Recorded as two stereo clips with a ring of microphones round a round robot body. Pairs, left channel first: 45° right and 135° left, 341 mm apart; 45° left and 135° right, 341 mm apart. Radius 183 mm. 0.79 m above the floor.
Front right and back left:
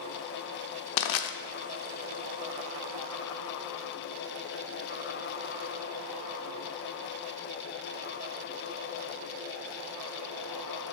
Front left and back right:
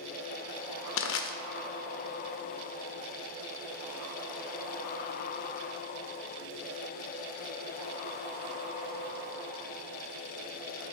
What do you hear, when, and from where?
1.0 s crushing: 10° right, 0.5 m